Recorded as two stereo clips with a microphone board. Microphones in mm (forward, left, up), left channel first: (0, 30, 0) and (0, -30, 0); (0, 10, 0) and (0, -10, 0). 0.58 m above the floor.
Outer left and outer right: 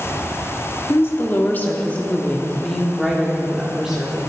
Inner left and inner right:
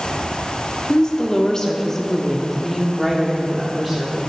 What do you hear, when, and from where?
0.9 s a woman speaking: 45° left (ahead or behind), 1.4 m; by 4.2 s 10° right (ahead or behind), 1.8 m